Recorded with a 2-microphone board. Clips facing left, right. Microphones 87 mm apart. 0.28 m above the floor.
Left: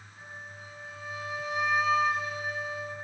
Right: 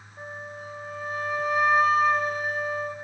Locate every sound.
0.2 s a flute: 50° right (ahead or behind), 0.7 m